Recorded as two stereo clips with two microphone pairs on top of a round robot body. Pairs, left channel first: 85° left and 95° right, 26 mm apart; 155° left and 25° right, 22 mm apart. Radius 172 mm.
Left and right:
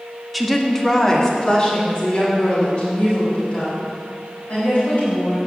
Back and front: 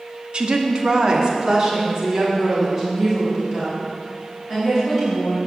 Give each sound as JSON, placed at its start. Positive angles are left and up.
{"t": 0.3, "sound": "a woman speaking", "azimuth_deg": -5, "distance_m": 1.5}